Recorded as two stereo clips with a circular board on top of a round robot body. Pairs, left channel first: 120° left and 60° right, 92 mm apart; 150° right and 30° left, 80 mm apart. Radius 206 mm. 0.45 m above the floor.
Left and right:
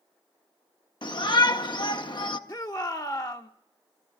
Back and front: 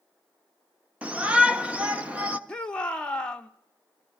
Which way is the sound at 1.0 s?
100° left.